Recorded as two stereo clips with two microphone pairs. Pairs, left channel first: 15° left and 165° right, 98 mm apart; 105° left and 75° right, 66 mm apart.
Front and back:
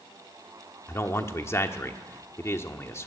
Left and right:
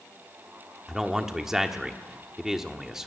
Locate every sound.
0.9 s a man speaking: 5° left, 1.4 m